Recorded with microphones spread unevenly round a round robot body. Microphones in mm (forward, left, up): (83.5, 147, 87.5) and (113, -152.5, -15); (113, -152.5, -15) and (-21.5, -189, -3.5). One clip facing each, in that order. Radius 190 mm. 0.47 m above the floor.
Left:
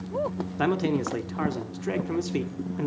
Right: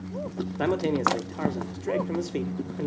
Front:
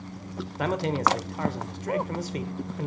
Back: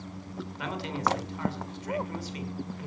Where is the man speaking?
15° left, 1.6 m.